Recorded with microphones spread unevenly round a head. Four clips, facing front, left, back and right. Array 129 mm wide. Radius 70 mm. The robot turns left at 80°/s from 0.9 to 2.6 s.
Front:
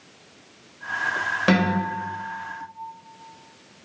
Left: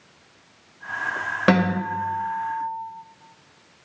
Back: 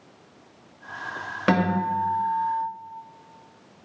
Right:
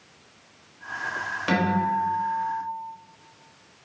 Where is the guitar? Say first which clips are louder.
Left 2 dB, even; 80° left, 3.5 m; by 2.6 s 10° right, 3.5 m.